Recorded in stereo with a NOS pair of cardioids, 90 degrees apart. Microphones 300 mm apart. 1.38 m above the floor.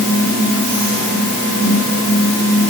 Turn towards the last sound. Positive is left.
No sound to turn to.